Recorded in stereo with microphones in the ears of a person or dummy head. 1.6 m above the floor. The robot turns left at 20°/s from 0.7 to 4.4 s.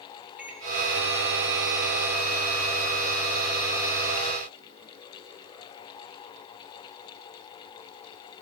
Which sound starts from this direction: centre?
A microwave, at 0.4 s.